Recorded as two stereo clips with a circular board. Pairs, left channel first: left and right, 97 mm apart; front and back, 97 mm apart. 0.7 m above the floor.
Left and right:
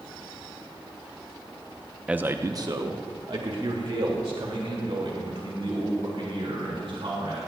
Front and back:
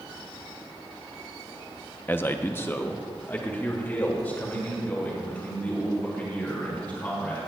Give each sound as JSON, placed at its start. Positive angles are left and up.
{"t": 2.1, "sound": "a man speaking", "azimuth_deg": -30, "distance_m": 0.5}